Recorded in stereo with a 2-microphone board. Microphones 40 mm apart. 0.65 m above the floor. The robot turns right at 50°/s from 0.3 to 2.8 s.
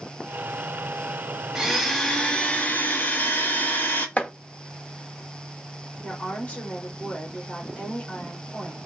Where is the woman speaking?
35° left (ahead or behind), 1.8 m.